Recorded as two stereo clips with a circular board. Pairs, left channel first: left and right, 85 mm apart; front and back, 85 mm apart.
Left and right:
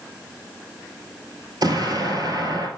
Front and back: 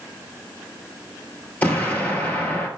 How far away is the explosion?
About 1.4 m.